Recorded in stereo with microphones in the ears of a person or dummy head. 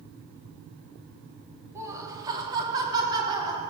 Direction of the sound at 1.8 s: 20° right (ahead or behind).